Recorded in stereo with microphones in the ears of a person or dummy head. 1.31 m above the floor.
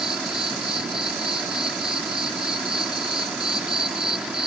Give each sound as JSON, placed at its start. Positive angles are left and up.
{"t": 0.0, "sound": "an insect", "side_deg": -10}